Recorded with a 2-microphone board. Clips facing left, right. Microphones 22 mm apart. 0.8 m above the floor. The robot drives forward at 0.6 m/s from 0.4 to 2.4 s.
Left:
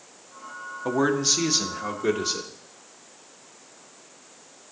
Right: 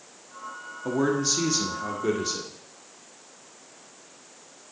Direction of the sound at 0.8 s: 30° left (ahead or behind).